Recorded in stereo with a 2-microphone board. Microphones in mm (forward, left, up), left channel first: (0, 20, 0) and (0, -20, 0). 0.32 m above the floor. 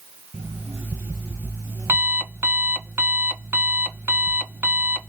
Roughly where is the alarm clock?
Right.